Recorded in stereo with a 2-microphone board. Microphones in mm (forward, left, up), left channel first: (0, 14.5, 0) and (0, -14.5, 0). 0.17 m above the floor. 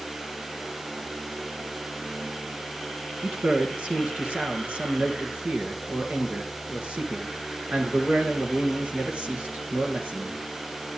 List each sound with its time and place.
3.2 s a man speaking: 45° right (ahead or behind), 3 m